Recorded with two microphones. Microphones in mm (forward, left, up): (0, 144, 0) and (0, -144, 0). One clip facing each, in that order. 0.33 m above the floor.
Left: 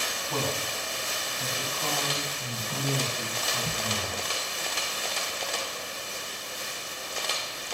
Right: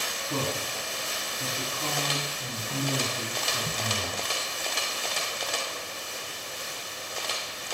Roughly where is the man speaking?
Right.